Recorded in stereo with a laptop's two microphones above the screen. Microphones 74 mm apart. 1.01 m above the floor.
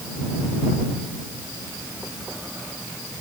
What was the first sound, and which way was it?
Only background noise.